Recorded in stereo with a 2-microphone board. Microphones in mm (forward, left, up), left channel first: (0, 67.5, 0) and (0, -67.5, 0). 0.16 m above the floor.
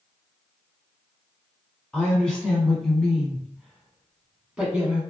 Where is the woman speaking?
5° left (ahead or behind), 1.3 m; by 5.0 s 5° right (ahead or behind), 1.3 m.